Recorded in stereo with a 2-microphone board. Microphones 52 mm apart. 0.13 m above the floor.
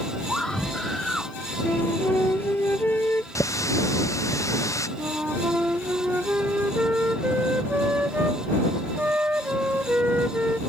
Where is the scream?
10° left (ahead or behind).